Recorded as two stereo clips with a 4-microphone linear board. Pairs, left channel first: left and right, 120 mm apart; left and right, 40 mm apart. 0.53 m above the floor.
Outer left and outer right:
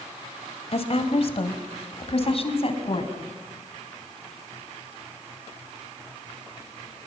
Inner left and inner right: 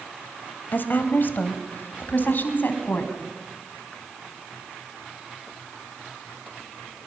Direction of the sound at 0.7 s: 55° left (ahead or behind).